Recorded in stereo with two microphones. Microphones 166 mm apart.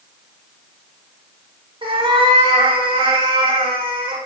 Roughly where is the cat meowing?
Right.